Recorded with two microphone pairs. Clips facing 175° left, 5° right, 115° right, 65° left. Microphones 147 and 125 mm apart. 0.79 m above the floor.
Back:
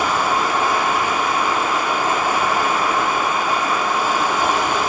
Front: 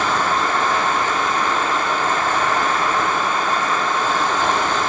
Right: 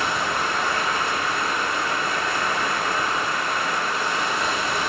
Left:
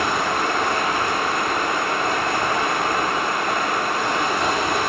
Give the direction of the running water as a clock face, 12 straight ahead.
9 o'clock.